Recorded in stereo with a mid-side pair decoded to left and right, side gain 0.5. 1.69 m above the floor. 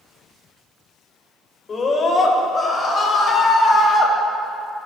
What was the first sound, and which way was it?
A scream, 40° left.